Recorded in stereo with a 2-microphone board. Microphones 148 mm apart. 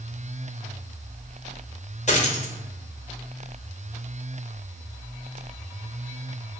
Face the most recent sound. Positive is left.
turn(degrees=50)  # may be behind; listen again after turning